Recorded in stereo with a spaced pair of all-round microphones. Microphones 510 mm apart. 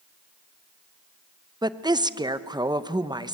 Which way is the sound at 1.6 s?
10° right (ahead or behind).